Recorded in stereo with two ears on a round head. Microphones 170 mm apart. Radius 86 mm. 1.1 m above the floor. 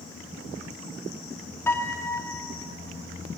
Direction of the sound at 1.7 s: 10° left (ahead or behind).